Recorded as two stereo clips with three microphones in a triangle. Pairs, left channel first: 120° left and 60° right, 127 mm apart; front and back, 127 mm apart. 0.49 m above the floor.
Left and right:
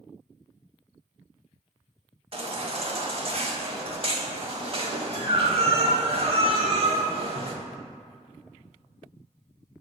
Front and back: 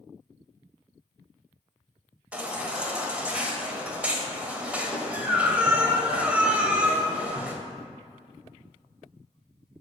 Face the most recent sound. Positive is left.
turn(degrees=-100)